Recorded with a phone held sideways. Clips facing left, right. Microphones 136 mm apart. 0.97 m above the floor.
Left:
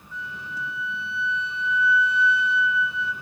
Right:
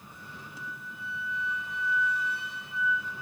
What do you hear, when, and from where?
0.1 s a flute: 50° right (ahead or behind), 2.5 m